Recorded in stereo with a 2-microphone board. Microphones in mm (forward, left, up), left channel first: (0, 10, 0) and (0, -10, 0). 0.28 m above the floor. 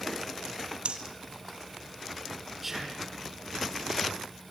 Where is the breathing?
60° right (ahead or behind), 2.5 m.